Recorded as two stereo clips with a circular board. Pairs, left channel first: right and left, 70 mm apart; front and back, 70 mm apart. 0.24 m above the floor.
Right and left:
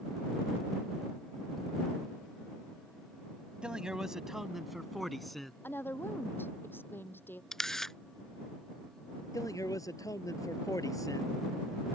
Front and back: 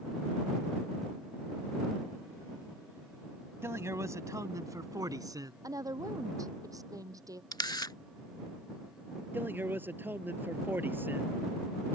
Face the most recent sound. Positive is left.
turn(degrees=-120)